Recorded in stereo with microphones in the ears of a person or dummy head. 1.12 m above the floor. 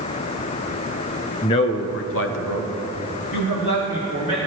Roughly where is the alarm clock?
No alarm clock in this recording.